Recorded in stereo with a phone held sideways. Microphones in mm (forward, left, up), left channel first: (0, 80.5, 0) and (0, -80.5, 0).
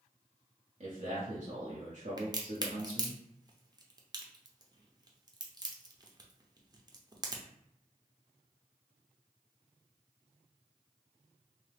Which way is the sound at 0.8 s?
55° right (ahead or behind).